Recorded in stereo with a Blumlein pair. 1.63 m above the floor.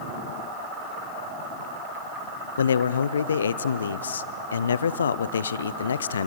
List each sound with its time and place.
2.6 s a man speaking: 70° left, 0.6 m